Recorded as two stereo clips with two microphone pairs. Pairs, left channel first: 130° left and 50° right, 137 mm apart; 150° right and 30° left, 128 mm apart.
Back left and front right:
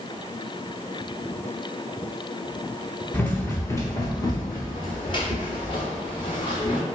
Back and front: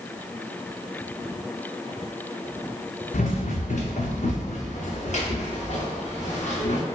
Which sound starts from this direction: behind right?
Running footsteps, at 3.1 s.